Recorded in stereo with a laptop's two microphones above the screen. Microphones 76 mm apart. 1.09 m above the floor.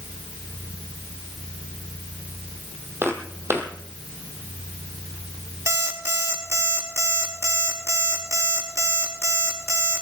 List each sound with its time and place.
3.0 s footsteps: 35° right (ahead or behind), 1.9 m
5.7 s an alarm clock: 40° right (ahead or behind), 5 m